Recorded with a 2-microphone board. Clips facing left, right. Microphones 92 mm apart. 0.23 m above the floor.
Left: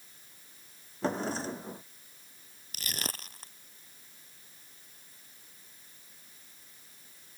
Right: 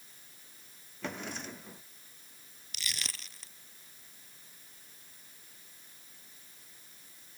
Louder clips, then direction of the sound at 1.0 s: Left 8 dB; 35° left (ahead or behind).